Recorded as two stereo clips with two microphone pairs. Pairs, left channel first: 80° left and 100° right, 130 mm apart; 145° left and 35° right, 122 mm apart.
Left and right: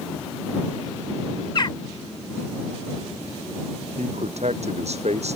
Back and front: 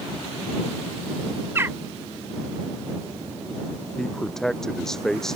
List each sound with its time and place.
1.6 s a bird: 35° left
4.0 s a man speaking: 125° right